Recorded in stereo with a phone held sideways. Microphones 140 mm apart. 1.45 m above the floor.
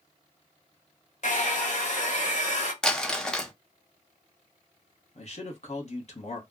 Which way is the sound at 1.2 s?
60° left (ahead or behind).